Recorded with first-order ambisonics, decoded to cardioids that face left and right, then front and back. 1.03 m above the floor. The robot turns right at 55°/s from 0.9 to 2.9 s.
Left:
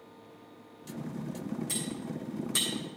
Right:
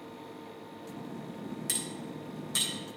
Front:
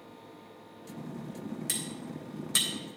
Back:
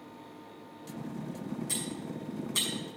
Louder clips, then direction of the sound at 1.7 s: Even, front 1 dB; 50° right.